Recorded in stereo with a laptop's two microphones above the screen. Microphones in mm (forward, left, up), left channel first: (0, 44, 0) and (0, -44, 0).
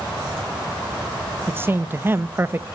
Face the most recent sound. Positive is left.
turn(degrees=-25)  # may be behind; listen again after turning